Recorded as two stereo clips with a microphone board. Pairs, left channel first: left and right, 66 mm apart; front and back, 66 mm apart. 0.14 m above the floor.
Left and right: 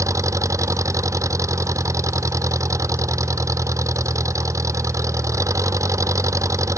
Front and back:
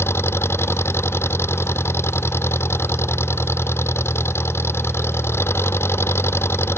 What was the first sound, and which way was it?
An engine running, 50° right.